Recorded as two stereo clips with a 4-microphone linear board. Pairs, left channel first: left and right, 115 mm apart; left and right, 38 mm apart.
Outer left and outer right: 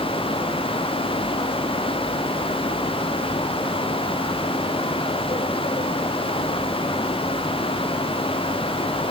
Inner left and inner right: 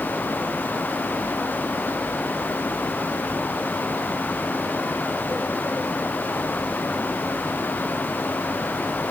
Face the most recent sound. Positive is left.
No sound to turn to.